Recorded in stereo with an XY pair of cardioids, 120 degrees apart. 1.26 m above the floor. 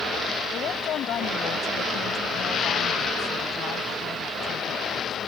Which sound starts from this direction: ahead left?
A woman speaking, at 0.5 s.